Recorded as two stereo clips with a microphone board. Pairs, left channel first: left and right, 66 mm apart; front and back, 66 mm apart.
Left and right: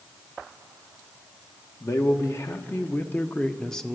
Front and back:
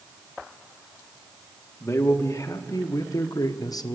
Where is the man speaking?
50° left, 1.6 m; by 4.0 s straight ahead, 0.8 m.